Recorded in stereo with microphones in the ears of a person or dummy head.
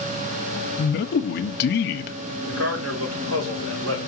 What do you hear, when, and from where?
0.8 s a man speaking: 65° left (ahead or behind), 1.1 m
2.5 s a man speaking: 85° right, 4.5 m